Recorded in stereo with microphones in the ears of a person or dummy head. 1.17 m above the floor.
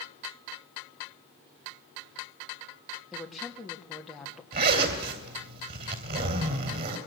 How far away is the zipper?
About 3 m.